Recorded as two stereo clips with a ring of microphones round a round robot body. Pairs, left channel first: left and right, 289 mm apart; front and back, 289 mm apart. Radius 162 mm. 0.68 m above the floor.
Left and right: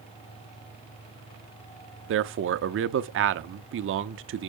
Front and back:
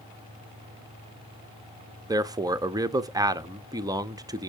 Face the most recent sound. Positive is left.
turn(degrees=-105)